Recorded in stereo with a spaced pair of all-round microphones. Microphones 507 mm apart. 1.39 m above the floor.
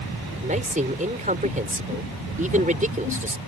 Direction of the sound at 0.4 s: 15° right (ahead or behind).